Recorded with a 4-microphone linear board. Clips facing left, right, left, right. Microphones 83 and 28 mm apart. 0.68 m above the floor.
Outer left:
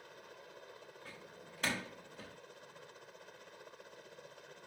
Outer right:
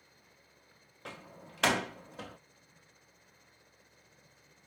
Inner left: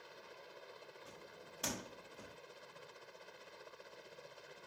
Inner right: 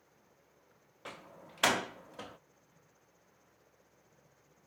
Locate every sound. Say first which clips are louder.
0.0 s a helicopter: outer left 10 dB, inner left 12 dB; 60° left (ahead or behind)
1.1 s a door slam: outer right 4 dB, inner right 5 dB; 75° right (ahead or behind)